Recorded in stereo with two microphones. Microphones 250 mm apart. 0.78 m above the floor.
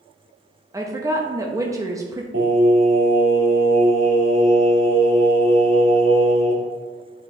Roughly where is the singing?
Right.